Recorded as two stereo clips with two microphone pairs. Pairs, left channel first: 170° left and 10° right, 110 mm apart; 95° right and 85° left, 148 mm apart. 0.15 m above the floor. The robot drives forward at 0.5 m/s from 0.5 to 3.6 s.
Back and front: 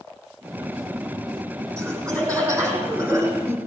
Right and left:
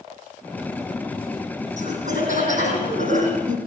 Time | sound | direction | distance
1.8 | laughter | 55° left | 9.5 m